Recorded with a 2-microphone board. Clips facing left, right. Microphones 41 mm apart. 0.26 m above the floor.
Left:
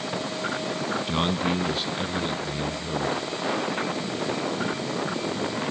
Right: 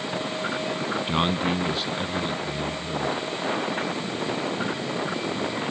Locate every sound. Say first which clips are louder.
1.1 s a man speaking: right 2 dB; 20° right (ahead or behind), 1.8 m; by 3.2 s 15° left (ahead or behind), 4.5 m